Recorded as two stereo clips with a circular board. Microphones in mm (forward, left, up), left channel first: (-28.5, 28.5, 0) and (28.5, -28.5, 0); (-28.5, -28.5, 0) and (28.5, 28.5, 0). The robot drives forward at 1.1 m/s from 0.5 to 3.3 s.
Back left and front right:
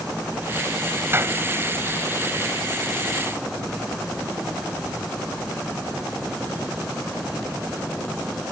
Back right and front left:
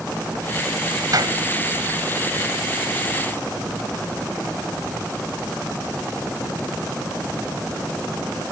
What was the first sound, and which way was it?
A clap, 10° left.